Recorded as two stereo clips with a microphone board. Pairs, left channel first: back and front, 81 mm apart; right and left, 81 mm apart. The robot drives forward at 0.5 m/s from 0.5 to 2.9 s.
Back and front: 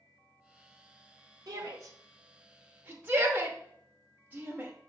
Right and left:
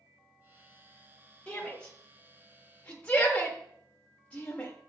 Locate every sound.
1.5 s a shout: 10° right, 1.3 m; by 4.7 s 35° right, 0.8 m